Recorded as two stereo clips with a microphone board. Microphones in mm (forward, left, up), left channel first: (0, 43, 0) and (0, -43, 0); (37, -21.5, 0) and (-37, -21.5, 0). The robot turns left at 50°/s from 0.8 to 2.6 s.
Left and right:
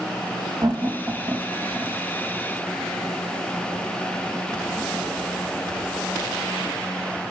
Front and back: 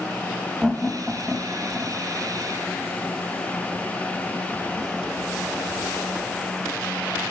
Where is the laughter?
85° right, 1.6 m; by 2.0 s 145° right, 1.6 m.